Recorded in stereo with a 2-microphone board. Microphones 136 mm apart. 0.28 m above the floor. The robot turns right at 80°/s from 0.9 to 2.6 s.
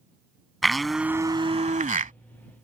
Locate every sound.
0.6 s a blender: straight behind; by 2.1 s 80° right